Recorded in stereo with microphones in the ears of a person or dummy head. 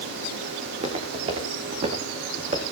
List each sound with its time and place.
0.7 s footsteps: 40° right (ahead or behind), 6.5 m